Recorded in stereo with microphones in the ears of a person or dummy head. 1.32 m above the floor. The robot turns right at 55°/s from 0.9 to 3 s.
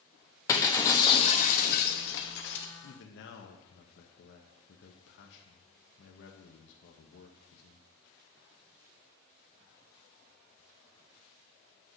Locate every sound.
0.5 s breaking glass: 20° left, 1.0 m; by 2.7 s 115° left, 1.0 m
2.8 s a man speaking: 60° left (ahead or behind), 1.1 m; by 7.9 s 70° left (ahead or behind), 1.1 m